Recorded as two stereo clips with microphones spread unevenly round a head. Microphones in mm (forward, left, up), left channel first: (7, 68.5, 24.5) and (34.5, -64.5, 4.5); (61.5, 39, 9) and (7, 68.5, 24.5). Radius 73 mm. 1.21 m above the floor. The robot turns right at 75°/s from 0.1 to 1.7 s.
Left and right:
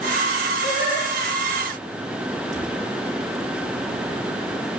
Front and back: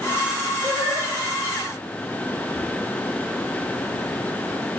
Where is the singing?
140° left, 9.5 m; by 1.1 s 175° left, 9.5 m.